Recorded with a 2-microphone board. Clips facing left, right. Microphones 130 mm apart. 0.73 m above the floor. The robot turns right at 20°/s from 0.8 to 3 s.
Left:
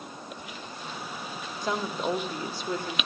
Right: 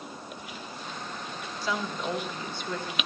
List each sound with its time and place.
1.6 s a woman speaking: 50° left (ahead or behind), 1.6 m; by 3.0 s 30° left (ahead or behind), 1.6 m